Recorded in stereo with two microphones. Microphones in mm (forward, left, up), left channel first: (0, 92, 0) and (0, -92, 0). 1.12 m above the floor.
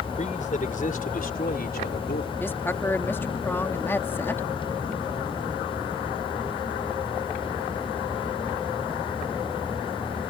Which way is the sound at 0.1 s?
45° left (ahead or behind).